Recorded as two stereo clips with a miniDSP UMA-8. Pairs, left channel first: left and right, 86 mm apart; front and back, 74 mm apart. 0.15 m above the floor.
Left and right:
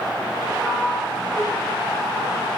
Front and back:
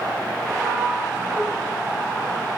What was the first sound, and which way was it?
A sliding door, straight behind.